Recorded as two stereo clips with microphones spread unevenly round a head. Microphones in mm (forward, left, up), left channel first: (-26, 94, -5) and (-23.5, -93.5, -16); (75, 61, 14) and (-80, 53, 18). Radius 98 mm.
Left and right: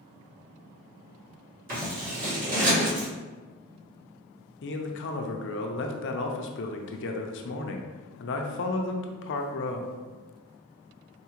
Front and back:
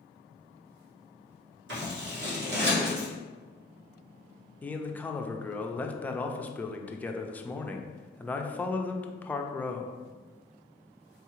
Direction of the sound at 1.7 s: 135° right.